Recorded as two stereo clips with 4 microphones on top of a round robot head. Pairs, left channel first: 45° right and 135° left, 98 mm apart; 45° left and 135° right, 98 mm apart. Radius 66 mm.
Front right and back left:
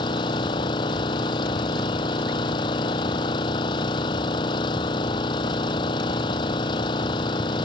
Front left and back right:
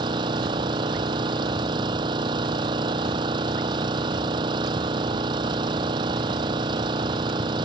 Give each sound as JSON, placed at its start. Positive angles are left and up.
{"t": 0.0, "sound": "an engine running", "azimuth_deg": -90}